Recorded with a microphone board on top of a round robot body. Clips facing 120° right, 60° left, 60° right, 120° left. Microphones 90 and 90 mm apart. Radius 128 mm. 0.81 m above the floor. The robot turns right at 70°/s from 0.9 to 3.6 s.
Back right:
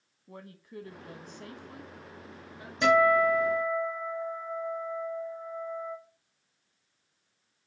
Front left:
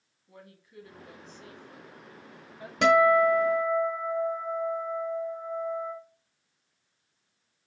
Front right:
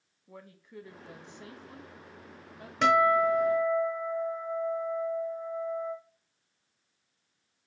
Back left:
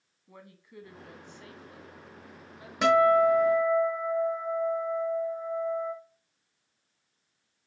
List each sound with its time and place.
0.3 s a woman speaking: 140° right, 0.9 m; by 2.7 s 15° right, 0.9 m
2.8 s a guitar: 35° left, 0.8 m; by 5.9 s 90° left, 0.8 m